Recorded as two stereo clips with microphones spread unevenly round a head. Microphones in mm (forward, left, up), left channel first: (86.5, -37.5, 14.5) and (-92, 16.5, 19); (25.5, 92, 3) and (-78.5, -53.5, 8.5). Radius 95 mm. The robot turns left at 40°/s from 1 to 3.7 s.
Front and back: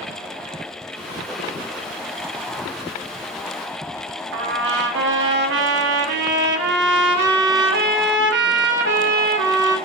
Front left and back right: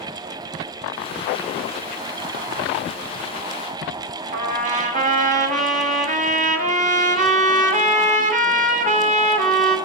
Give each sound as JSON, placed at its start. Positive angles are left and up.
{"t": 4.3, "sound": "a trumpet", "azimuth_deg": -170, "distance_m": 1.3}